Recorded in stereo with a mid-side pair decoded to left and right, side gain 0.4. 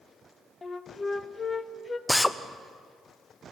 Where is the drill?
15° left, 0.8 m.